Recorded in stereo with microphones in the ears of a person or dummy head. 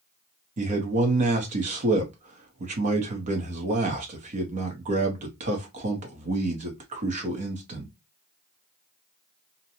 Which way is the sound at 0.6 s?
40° right (ahead or behind).